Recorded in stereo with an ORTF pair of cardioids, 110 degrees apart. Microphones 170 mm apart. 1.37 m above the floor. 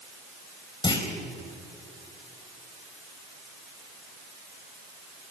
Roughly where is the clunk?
Ahead left.